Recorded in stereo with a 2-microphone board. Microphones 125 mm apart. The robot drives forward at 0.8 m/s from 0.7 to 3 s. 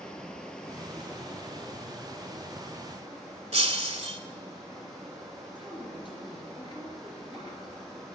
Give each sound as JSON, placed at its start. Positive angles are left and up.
{"t": 0.0, "sound": "running water", "side_deg": 5, "distance_m": 1.3}
{"t": 3.5, "sound": "breaking glass", "side_deg": -55, "distance_m": 0.7}
{"t": 5.5, "sound": "a woman speaking", "side_deg": 40, "distance_m": 3.0}